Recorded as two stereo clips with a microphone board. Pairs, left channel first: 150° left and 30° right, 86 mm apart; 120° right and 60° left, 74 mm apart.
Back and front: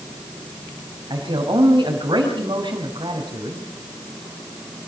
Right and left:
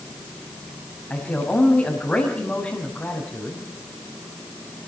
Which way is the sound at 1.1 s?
55° right.